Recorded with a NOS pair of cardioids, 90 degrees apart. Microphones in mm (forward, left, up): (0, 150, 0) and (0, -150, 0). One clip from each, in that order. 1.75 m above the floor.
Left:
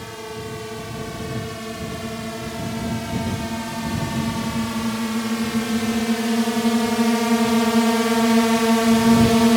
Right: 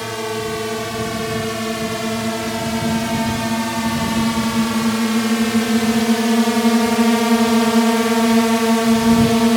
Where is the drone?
65° right; by 9.6 s 5° right.